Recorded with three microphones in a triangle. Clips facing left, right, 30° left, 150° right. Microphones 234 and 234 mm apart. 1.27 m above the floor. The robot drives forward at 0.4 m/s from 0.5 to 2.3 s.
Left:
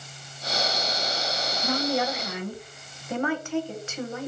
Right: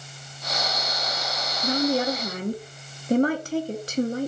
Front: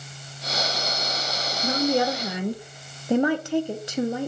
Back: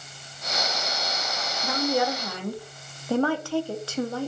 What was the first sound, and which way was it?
A woman speaking, 30° right.